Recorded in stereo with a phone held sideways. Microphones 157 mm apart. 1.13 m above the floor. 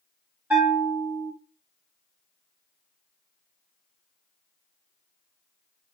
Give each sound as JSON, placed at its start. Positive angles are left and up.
{"t": 0.5, "sound": "a bell", "side_deg": -10, "distance_m": 1.6}